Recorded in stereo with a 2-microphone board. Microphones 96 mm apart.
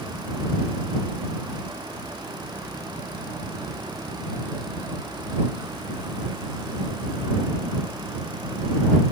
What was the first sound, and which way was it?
Only background noise.